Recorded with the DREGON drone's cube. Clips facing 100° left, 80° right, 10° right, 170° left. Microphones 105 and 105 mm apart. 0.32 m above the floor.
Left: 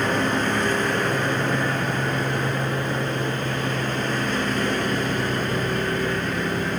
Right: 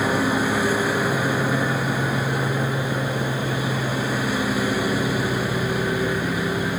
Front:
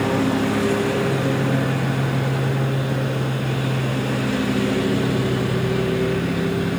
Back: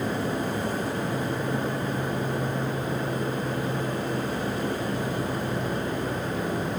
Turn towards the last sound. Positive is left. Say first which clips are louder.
# right 1 dB, front 8 dB
turn(degrees=0)